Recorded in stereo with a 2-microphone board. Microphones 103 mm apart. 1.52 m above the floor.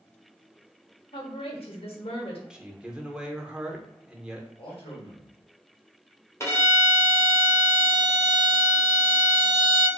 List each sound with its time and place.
1.1 s a woman speaking: 65° left (ahead or behind), 0.8 m
2.5 s a man speaking: 10° right (ahead or behind), 0.5 m
4.6 s a man speaking: 60° left (ahead or behind), 1.2 m
6.4 s a violin: 25° left (ahead or behind), 0.8 m